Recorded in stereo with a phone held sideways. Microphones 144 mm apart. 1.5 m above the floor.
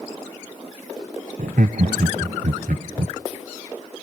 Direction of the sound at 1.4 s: 70° right (ahead or behind).